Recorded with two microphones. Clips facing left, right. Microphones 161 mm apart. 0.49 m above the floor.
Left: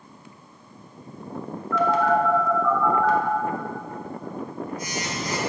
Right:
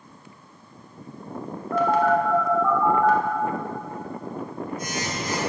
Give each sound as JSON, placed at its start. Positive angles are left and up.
{"t": 1.7, "sound": "a phone buzzing", "side_deg": -50, "distance_m": 1.4}